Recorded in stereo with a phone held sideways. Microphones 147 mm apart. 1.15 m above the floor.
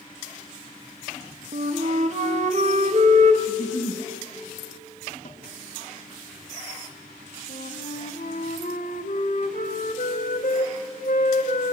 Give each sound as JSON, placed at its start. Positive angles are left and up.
{"t": 1.5, "sound": "a flute", "side_deg": -50, "distance_m": 1.9}
{"t": 3.5, "sound": "a giggle", "side_deg": 65, "distance_m": 3.5}
{"t": 5.2, "sound": "a snare drum", "side_deg": 50, "distance_m": 3.0}
{"t": 7.5, "sound": "a flute", "side_deg": 70, "distance_m": 1.9}